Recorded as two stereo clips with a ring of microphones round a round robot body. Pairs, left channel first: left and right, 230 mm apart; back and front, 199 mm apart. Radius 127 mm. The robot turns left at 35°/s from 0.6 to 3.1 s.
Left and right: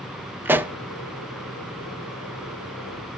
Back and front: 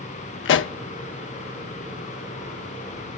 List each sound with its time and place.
0.5 s a pop: 170° right, 0.5 m; by 0.7 s 175° right, 0.5 m